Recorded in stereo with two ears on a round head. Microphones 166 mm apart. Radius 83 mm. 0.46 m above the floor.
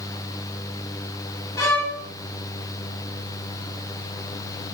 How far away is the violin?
About 2.5 m.